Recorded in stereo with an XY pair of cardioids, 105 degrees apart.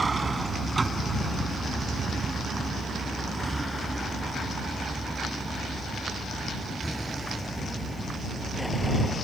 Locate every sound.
0.0 s a vehicle: 25° right; by 9.2 s 5° left